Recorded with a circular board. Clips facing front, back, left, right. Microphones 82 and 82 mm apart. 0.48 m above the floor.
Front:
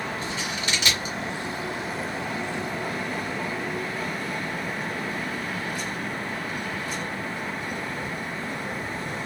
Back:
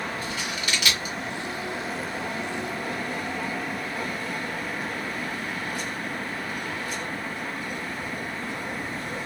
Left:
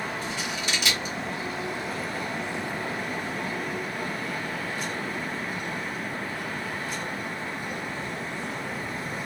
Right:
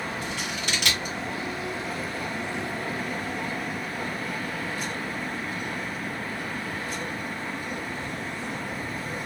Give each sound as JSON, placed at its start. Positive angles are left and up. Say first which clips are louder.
{"t": 0.2, "sound": "scissors", "louder": "front 1 dB, even", "azimuth_deg": -60, "distance_m": 1.6}